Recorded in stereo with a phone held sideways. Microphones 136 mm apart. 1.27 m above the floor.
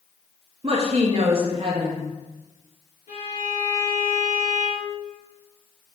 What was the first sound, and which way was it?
A woman speaking, 40° right (ahead or behind).